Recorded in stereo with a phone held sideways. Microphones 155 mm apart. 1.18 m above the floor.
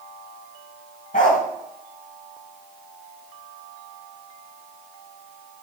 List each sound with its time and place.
1.1 s a dog barking: 60° left (ahead or behind), 3 m